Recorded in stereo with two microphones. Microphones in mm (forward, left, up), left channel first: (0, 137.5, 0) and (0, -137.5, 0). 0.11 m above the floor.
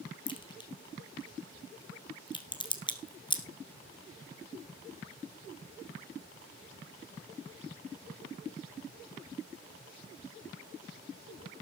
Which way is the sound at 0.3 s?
15° left (ahead or behind).